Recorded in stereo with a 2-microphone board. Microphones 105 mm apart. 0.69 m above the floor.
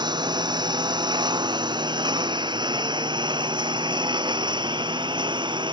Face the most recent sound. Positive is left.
turn(degrees=-45)  # may be behind; listen again after turning